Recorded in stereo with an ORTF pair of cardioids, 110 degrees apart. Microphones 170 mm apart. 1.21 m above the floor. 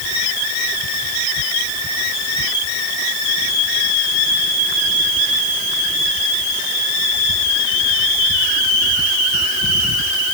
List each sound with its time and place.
Only background noise.